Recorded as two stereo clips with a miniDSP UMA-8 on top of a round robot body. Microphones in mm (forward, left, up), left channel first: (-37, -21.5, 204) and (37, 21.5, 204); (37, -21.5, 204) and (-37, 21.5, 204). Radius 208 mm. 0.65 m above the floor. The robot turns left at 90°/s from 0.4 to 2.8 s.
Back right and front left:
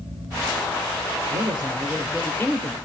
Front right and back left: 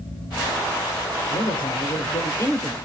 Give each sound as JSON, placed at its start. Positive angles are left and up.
{"t": 1.3, "sound": "a man speaking", "azimuth_deg": 15, "distance_m": 4.5}